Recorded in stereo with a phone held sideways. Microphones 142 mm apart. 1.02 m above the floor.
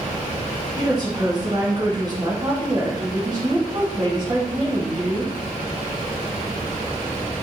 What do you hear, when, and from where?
0.8 s a woman speaking: 30° right (ahead or behind), 1.5 m